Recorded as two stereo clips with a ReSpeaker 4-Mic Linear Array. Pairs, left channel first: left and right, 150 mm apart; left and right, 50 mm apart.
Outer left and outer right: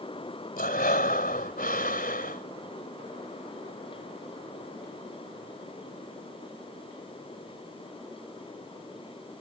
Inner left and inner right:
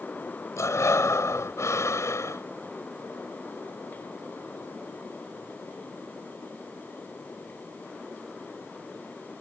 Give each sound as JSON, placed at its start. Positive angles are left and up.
{"t": 0.6, "sound": "breathing", "side_deg": 75}